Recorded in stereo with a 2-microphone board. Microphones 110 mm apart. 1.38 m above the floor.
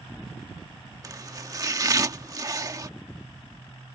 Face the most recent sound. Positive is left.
turn(degrees=-35)  # may be behind; listen again after turning